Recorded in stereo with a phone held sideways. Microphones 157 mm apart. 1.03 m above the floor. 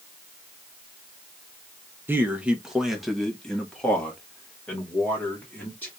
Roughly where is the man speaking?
Centre.